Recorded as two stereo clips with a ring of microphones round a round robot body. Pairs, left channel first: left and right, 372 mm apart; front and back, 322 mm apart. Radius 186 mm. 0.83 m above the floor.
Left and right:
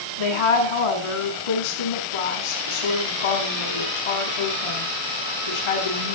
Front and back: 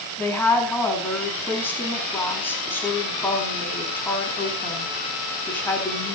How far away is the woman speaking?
About 6.5 m.